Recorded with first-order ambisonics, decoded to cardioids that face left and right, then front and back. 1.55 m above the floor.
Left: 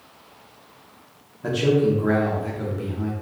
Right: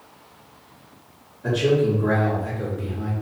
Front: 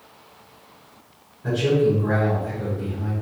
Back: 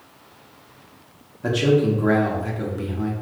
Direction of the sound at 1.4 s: 155° left.